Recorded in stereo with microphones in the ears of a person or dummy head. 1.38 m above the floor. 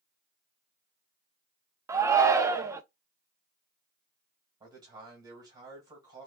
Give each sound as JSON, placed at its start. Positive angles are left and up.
{"t": 1.9, "sound": "a shout", "side_deg": -15, "distance_m": 0.5}
{"t": 4.6, "sound": "a man speaking", "side_deg": -20, "distance_m": 2.0}